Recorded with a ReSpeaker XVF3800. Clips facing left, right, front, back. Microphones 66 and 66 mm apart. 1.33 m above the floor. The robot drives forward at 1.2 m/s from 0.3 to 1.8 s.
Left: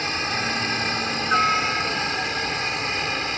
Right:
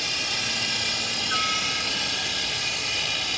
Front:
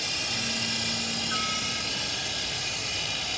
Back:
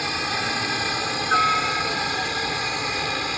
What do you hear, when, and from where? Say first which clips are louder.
0.0 s a helicopter: left 6 dB, back 8 dB; 145° left